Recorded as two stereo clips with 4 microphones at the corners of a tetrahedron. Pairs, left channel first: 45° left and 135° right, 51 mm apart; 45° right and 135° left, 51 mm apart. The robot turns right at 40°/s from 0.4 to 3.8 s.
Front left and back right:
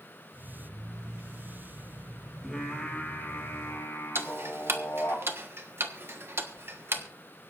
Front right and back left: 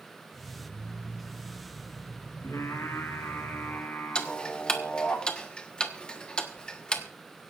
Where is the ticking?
115° right, 1.3 m.